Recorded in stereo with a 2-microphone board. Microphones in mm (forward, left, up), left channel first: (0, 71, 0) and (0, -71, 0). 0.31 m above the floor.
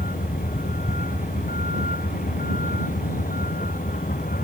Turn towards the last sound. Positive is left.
turn(degrees=85)